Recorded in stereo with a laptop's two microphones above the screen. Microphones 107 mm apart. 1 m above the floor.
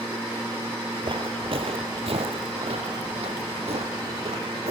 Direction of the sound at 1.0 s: 55° right (ahead or behind).